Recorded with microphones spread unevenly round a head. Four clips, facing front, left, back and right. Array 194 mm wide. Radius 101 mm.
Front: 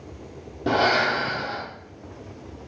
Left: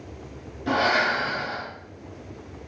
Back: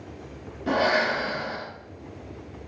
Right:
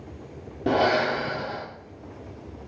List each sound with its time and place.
0.7 s breathing: 55° right, 2.5 m